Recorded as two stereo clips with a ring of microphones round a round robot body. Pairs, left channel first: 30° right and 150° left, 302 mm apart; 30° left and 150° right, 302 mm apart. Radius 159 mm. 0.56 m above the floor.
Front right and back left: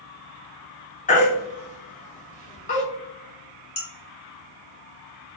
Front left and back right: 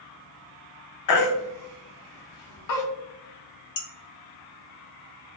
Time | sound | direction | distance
1.1 | a baby crying | 35° left | 0.7 m
3.8 | dishes clattering | 40° left | 1.4 m